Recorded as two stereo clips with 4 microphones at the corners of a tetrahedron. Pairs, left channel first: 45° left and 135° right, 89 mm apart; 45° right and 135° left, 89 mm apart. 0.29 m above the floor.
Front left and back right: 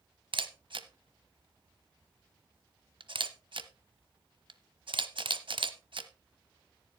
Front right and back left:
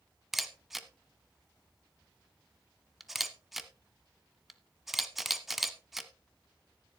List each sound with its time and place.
0.3 s a camera shutter: 140° right, 0.9 m